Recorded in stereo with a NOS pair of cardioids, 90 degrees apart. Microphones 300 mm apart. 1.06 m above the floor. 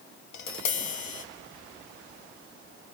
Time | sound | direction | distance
0.3 | tapping | 70° left | 1.2 m